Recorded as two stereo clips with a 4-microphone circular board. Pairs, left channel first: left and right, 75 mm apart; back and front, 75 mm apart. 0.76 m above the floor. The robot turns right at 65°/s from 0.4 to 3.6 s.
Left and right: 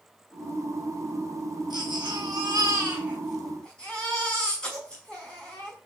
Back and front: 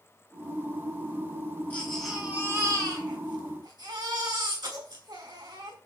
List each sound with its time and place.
1.7 s a baby crying: 110° right, 5.5 m; by 5.8 s 10° left, 5.5 m